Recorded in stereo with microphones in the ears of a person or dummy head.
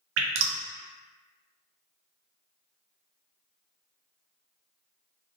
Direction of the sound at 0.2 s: 75° right (ahead or behind).